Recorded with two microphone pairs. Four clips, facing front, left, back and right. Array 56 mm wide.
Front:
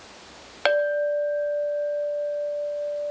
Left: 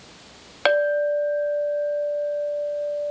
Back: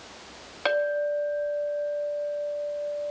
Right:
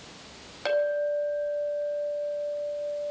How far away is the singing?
I don't hear singing.